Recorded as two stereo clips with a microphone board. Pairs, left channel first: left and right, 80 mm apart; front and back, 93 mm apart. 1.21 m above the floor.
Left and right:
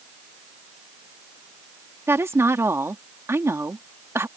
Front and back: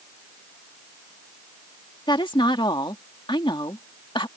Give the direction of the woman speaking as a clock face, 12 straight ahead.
1 o'clock.